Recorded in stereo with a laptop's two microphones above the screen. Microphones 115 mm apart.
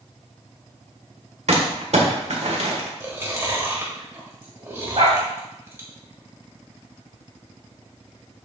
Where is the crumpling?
75° right (ahead or behind), 1.8 m.